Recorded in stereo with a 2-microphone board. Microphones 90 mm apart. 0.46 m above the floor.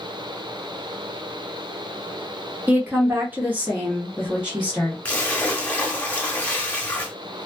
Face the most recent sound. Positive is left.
turn(degrees=15)  # may be behind; listen again after turning